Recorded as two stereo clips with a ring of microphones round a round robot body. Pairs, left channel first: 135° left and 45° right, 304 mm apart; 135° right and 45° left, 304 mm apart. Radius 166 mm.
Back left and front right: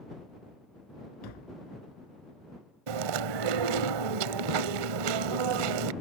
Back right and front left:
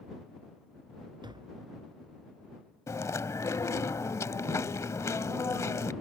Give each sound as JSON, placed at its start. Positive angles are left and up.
{"t": 1.2, "sound": "tapping", "azimuth_deg": 120}
{"t": 2.9, "sound": "chewing", "azimuth_deg": -55}